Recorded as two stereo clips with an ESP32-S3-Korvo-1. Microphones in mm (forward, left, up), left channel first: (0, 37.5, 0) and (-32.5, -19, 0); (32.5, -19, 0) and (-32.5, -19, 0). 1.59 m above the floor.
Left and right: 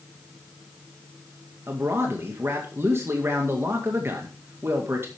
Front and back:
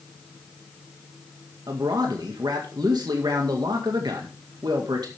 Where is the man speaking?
175° right, 2.0 m.